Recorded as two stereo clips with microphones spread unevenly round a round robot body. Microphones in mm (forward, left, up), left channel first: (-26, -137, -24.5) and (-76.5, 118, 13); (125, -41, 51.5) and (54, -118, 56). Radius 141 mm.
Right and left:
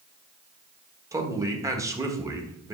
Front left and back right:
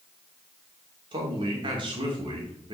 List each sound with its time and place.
1.1 s a man speaking: 175° right, 1.4 m